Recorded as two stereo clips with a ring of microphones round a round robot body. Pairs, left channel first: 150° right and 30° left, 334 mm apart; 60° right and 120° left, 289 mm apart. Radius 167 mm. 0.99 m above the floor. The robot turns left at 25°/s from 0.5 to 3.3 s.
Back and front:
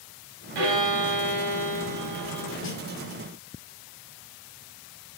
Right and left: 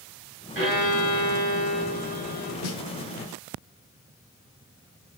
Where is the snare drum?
95° right, 1.5 m; by 2.8 s 100° right, 1.5 m.